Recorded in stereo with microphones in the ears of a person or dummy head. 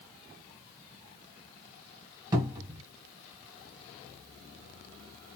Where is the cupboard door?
20° right (ahead or behind), 1.3 m.